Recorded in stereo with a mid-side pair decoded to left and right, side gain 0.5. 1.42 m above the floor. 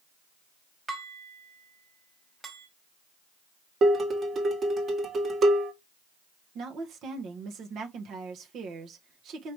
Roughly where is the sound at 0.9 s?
Ahead right.